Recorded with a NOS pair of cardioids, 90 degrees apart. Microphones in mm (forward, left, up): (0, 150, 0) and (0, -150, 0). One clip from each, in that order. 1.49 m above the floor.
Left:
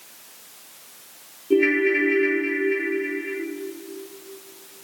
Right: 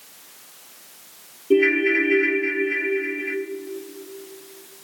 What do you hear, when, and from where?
1.5 s a ringtone: 25° right, 1.5 m